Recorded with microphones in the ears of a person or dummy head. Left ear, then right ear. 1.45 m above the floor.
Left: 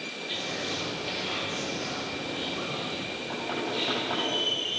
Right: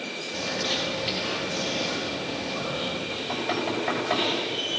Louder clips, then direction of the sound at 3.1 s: Right 4 dB; 80° right.